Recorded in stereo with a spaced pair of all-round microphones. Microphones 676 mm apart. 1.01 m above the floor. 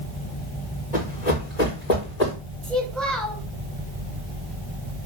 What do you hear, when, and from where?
0.9 s running footsteps: 75° left (ahead or behind), 6 m; by 2.4 s 80° left, 5.5 m
2.6 s a child speaking: centre (ahead or behind), 3 m